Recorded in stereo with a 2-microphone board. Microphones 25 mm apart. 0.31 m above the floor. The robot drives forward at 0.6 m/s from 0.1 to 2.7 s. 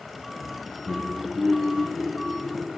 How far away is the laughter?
About 0.9 m.